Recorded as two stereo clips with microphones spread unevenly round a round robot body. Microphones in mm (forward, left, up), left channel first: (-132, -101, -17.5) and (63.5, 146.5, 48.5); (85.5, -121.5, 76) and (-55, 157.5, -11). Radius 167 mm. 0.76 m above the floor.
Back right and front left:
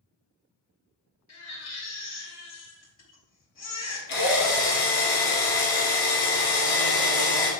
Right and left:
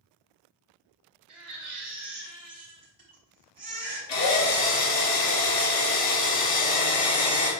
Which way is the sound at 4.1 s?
115° right.